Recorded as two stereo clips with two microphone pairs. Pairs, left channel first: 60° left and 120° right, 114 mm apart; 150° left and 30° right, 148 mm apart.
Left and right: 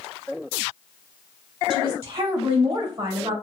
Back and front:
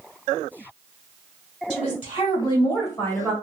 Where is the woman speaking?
165° right, 3 m; by 3.3 s 120° right, 1.2 m.